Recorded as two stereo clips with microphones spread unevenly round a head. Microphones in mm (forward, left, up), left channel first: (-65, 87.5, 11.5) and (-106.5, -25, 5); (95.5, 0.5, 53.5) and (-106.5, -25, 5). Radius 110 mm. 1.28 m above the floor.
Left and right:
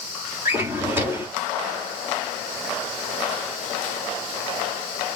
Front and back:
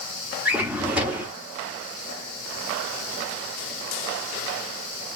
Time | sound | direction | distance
0.5 | a drawer | 60° right | 0.8 m